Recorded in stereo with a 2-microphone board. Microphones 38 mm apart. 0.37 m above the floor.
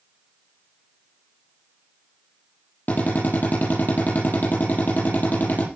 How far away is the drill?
About 7.5 m.